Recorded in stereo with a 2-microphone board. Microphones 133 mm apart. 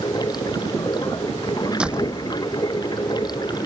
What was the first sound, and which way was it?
Running water, 30° left (ahead or behind).